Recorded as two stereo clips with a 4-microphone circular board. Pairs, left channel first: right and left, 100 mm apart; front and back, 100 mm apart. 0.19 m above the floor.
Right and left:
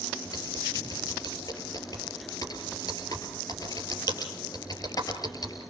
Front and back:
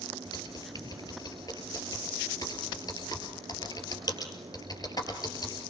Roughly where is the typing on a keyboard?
Ahead right.